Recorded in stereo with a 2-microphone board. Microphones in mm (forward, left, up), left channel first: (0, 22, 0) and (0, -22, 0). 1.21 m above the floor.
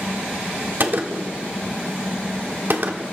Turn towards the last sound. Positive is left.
turn(degrees=-55)  # may be behind; listen again after turning